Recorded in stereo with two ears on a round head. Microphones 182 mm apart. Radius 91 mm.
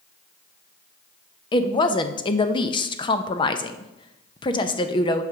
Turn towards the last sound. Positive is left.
turn(degrees=25)  # may be behind; listen again after turning